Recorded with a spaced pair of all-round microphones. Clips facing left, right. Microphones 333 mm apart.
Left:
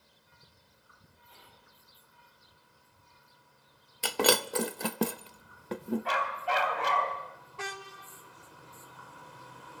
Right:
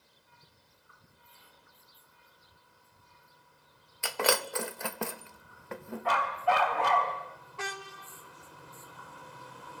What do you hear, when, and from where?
1.3 s whispering: 80° left, 3.5 m
4.0 s breaking glass: 45° left (ahead or behind), 0.6 m
6.0 s a dog barking: 60° right (ahead or behind), 3 m